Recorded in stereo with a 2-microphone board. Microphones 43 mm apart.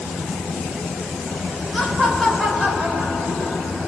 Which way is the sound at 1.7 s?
5° right (ahead or behind).